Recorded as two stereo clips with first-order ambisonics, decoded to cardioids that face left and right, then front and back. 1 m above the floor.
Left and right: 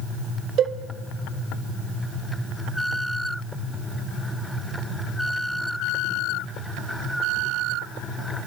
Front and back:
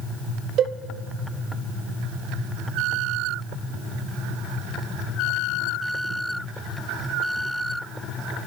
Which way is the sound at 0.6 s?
135° right.